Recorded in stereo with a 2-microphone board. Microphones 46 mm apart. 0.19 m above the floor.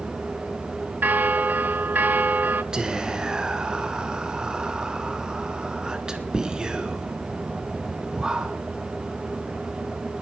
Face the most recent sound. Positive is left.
turn(degrees=-15)  # may be behind; listen again after turning